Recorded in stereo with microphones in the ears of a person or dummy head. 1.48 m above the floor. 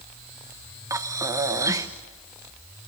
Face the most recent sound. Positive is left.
turn(degrees=-20)  # may be behind; listen again after turning